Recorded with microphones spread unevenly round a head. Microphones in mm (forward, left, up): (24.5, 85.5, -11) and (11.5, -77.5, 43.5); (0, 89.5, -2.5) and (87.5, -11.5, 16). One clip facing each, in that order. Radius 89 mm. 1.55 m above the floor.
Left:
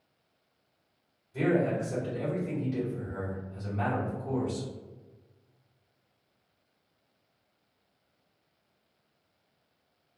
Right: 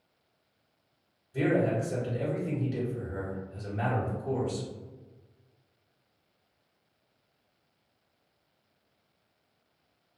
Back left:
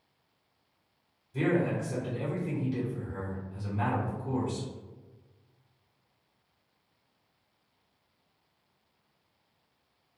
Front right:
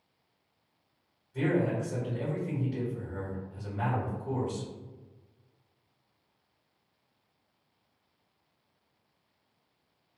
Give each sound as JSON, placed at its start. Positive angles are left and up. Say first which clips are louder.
{"t": 1.3, "sound": "a man speaking", "louder": "even, even", "azimuth_deg": -175, "distance_m": 1.4}